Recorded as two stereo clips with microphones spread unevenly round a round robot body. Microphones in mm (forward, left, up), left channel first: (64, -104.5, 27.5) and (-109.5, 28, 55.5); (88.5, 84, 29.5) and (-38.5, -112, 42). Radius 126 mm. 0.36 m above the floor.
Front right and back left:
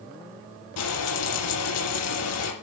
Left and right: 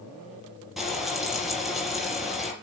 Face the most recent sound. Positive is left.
turn(degrees=-35)